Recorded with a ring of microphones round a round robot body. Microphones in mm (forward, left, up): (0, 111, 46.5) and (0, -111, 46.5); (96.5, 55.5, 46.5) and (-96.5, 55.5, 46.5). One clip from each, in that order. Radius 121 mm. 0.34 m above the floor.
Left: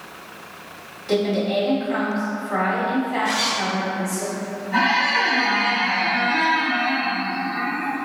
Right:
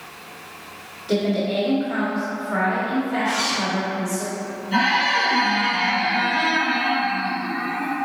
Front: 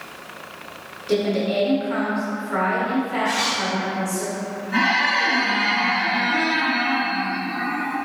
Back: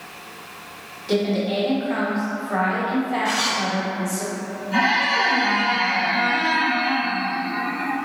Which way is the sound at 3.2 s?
165° left.